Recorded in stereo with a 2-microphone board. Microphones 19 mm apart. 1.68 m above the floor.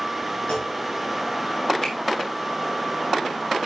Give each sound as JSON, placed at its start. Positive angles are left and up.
{"t": 0.5, "sound": "a clunk", "side_deg": 50, "distance_m": 2.5}
{"t": 1.8, "sound": "a finger snap", "side_deg": 40, "distance_m": 2.5}